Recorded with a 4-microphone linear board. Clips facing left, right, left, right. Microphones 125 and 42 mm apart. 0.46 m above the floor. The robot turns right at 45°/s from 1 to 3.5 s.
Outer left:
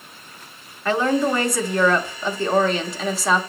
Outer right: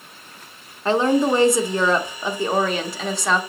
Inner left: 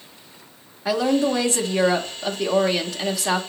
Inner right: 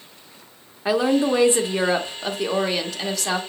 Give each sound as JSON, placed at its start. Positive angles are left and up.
{"t": 0.8, "sound": "a woman speaking", "side_deg": -25, "distance_m": 0.7}